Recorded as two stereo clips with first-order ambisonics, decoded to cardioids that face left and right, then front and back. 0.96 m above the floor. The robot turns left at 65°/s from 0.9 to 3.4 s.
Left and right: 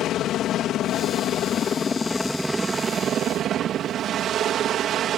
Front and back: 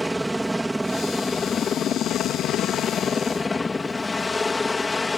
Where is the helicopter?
95° left; by 5.2 s 70° right.